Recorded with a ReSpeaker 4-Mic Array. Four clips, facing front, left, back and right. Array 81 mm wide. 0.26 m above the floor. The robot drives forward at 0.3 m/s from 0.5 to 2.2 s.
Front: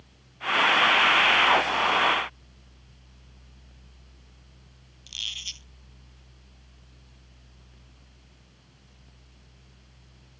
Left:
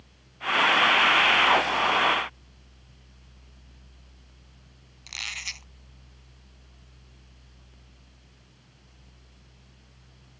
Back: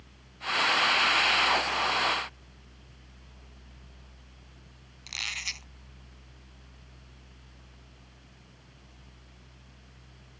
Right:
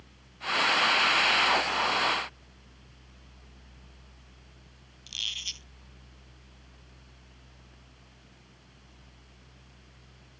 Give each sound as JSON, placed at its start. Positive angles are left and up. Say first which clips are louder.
{"t": 5.1, "sound": "a squeak", "louder": "left 5 dB, back 5 dB", "azimuth_deg": 135}